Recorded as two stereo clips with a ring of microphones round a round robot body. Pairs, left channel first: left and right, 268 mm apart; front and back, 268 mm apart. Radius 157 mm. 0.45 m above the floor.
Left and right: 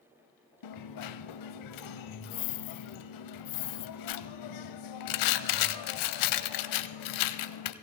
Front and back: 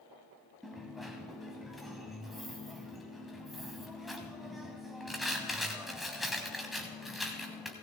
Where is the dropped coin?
90° left, 0.6 m.